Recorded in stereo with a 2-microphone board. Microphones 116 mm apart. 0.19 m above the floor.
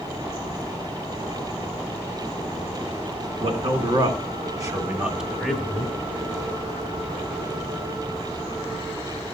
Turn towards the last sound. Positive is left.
turn(degrees=15)  # may be behind; listen again after turning